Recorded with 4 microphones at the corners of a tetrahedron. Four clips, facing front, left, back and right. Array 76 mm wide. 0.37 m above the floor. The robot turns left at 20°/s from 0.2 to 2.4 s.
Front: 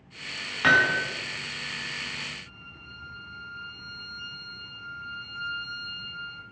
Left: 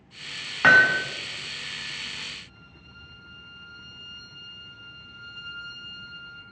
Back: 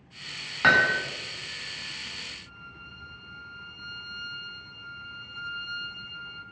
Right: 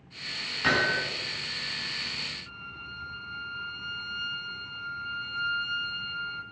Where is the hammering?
115° left, 1.8 m; by 1.0 s 105° left, 1.8 m.